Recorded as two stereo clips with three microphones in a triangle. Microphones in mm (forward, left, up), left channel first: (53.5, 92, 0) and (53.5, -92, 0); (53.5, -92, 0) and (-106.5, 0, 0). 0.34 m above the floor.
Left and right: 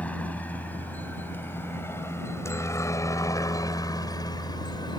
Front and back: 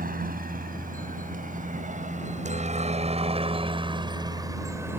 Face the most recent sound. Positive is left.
turn(degrees=90)